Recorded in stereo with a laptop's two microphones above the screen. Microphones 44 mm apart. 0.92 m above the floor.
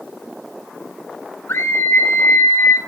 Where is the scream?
70° left (ahead or behind), 5 m; by 2.8 s 80° left, 5 m.